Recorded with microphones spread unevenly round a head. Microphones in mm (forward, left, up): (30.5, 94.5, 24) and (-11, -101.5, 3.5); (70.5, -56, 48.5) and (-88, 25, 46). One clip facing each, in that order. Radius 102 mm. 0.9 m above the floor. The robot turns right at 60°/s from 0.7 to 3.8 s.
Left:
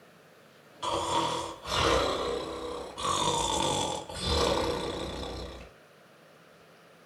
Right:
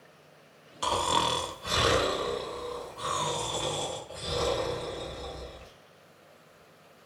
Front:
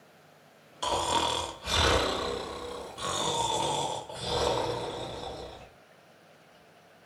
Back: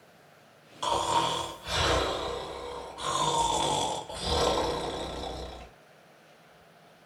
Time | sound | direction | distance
0.8 | snoring | 100° right | 1.2 m